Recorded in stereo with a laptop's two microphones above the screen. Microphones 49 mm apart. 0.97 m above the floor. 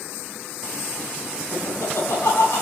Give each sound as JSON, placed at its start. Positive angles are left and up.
{"t": 1.5, "sound": "laughter", "side_deg": 60, "distance_m": 8.5}